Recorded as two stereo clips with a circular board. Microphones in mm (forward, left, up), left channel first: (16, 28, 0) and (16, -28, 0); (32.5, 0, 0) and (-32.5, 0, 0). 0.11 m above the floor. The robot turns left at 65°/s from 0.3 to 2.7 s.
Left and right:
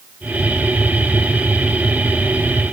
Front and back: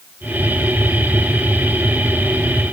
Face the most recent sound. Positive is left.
No sound to turn to.